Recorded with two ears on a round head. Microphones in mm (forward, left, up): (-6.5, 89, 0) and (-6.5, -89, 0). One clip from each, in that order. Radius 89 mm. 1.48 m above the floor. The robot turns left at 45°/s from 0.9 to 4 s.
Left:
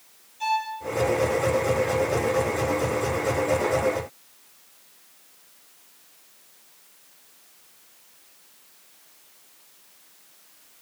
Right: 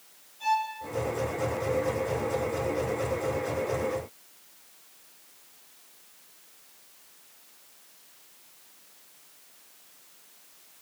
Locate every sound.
0.4 s a violin: 45° left (ahead or behind), 6 m